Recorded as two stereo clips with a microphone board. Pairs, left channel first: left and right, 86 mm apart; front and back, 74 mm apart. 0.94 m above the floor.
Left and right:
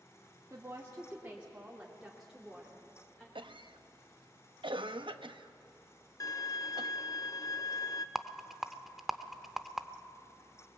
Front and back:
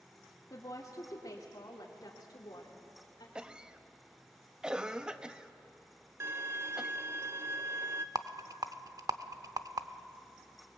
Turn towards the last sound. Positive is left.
turn(degrees=-175)